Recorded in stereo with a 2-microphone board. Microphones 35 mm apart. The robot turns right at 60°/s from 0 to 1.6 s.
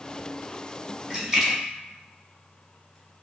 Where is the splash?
20° right (ahead or behind), 0.9 m; by 3.0 s 5° left (ahead or behind), 0.9 m.